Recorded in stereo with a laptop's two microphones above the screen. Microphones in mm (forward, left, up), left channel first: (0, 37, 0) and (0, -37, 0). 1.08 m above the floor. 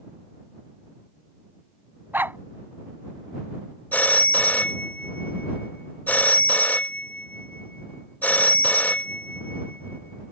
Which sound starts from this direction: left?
A phone ringing, at 3.9 s.